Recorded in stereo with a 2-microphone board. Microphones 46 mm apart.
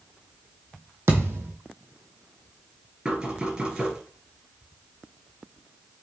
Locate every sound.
1.1 s a thud: 65° right (ahead or behind), 1.2 m
3.0 s knocking: 20° right (ahead or behind), 2 m